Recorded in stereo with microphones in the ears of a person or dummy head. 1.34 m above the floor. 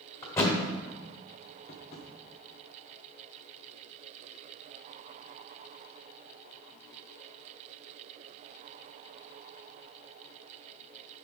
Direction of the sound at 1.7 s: 35° left (ahead or behind).